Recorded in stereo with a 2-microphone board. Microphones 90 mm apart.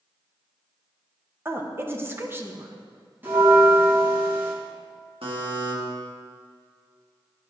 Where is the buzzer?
85° right, 1.6 m.